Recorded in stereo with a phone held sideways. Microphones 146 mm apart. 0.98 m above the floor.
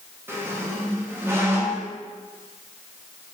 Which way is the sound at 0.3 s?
15° right (ahead or behind).